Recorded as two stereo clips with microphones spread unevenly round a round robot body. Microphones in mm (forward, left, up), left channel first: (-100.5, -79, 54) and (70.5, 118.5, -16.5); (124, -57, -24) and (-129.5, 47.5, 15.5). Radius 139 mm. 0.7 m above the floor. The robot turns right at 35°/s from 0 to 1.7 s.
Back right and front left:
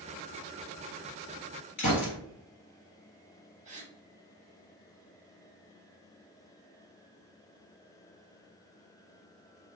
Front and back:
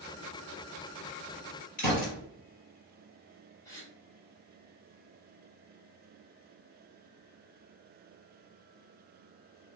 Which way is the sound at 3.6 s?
40° left.